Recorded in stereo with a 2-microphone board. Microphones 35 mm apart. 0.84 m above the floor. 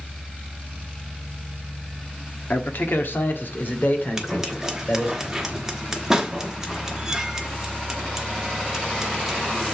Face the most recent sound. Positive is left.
turn(degrees=-15)  # may be behind; listen again after turning